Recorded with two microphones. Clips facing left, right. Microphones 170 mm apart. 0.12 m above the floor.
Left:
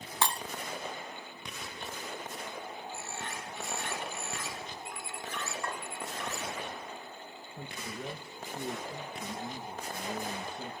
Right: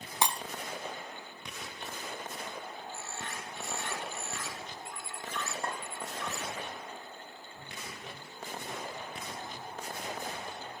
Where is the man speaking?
75° left (ahead or behind), 9 m.